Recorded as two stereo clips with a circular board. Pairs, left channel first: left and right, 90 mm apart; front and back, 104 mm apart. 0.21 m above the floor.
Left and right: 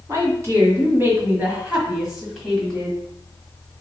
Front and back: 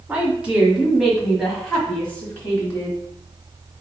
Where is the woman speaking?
115° right, 1.7 m; by 3.0 s 25° left, 1.5 m.